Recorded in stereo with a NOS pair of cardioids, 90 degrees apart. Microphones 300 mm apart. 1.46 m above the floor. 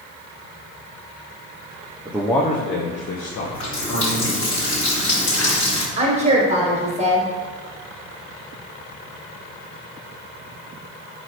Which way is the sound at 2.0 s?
10° right.